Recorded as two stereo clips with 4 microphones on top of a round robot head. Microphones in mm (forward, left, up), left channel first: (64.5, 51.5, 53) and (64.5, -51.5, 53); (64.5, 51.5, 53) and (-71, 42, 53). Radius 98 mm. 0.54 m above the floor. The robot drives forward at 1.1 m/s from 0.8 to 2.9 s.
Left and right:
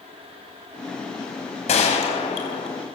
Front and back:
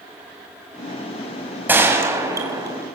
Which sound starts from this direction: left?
A gunshot, at 1.7 s.